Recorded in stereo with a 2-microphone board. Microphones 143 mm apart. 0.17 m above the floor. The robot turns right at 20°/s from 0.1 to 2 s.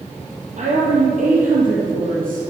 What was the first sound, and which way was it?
A woman speaking, 55° right (ahead or behind).